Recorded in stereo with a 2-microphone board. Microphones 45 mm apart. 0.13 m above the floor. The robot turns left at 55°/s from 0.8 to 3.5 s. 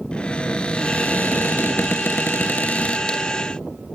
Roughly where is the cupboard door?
Behind left.